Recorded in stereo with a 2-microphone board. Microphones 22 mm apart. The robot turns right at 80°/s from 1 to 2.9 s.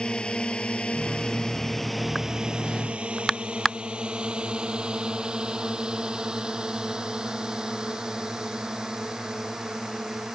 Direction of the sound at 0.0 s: 45° left (ahead or behind).